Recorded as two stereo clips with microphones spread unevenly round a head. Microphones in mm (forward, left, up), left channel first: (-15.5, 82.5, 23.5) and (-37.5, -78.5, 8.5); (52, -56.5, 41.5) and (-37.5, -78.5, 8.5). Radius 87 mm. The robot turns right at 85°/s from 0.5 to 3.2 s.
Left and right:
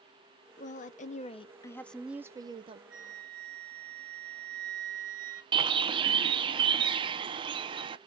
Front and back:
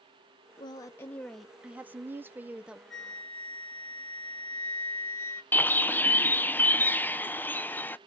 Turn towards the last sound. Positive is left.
turn(degrees=-75)